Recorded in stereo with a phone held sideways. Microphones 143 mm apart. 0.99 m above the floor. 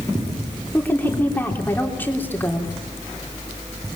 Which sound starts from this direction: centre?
A woman speaking, at 0.7 s.